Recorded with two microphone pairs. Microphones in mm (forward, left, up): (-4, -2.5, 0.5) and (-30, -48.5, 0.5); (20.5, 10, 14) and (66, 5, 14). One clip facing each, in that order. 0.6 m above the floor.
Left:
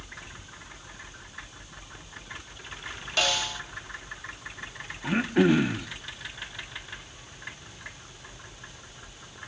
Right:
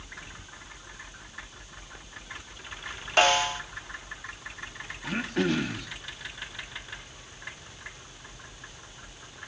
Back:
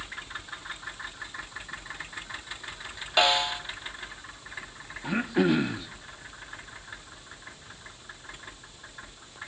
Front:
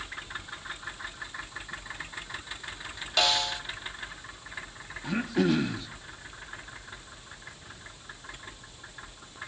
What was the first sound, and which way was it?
A snare drum, 130° right.